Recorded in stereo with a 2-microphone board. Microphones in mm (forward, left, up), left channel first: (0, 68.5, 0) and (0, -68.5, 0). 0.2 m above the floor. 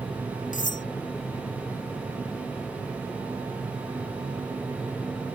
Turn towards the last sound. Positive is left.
turn(degrees=70)  # may be behind; listen again after turning